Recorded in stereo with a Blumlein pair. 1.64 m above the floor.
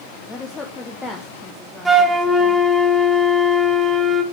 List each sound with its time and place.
0.3 s a woman speaking: 15° left, 1.0 m
1.9 s a flute: 5° right, 1.2 m